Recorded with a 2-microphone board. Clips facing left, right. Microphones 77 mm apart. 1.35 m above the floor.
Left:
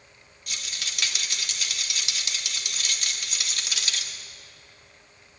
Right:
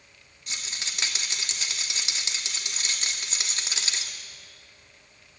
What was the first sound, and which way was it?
A rattle, 30° right (ahead or behind).